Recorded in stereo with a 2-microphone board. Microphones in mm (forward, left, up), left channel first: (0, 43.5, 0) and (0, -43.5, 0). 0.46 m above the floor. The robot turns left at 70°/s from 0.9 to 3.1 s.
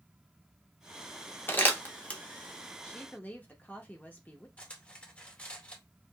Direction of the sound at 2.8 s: 20° left (ahead or behind).